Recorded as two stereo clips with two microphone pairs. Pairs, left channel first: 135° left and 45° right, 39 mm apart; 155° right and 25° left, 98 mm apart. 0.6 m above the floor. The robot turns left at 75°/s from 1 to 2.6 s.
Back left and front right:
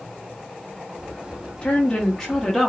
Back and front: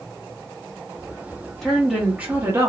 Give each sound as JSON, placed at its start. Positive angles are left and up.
{"t": 1.6, "sound": "a woman speaking", "azimuth_deg": 125, "distance_m": 0.9}